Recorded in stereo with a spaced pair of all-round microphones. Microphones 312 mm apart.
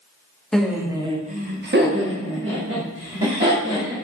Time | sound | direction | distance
0.5 | laughter | centre (ahead or behind) | 0.7 m